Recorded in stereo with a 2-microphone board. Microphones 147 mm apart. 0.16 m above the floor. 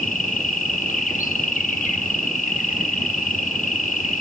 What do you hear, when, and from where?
0.0 s an insect: 65° left (ahead or behind), 1.4 m